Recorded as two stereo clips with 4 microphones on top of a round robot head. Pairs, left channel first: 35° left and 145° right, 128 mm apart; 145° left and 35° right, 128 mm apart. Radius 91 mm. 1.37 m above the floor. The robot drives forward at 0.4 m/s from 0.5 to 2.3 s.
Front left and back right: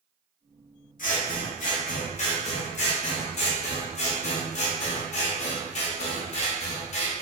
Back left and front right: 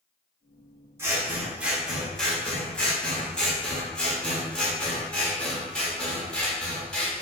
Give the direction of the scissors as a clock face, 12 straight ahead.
11 o'clock.